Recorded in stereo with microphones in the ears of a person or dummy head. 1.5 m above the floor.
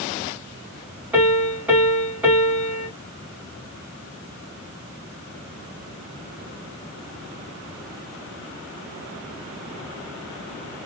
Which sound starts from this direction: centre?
A piano, at 1.1 s.